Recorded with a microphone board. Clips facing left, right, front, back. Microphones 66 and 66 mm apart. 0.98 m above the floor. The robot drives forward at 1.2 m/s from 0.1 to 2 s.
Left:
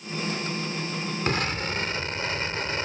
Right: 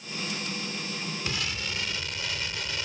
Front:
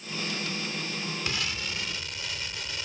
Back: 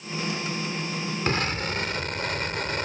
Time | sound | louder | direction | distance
1.3 | an explosion | left 9 dB, back 7 dB | 130° left | ?